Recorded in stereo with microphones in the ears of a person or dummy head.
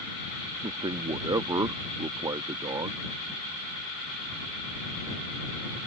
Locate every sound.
0.6 s a man speaking: 15° right (ahead or behind)